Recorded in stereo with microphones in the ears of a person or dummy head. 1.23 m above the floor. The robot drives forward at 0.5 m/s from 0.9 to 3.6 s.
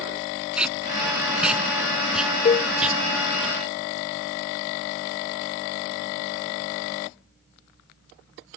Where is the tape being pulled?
5° right (ahead or behind).